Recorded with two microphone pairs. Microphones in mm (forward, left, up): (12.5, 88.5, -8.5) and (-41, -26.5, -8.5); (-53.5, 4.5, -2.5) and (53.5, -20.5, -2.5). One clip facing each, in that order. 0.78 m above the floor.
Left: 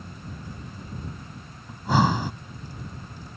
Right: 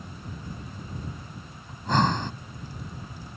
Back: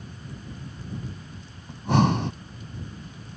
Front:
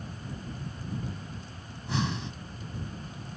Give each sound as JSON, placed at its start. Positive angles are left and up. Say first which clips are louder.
{"t": 1.7, "sound": "breathing", "louder": "left 2 dB, back 11 dB", "azimuth_deg": 145}